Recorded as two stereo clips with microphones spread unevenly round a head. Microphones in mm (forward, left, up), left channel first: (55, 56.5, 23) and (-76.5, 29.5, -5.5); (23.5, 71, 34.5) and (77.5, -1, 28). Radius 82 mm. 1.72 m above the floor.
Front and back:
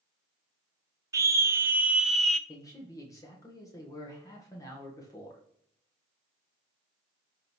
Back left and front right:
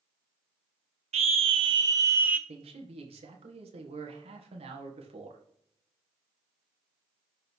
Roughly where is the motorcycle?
No motorcycle in this recording.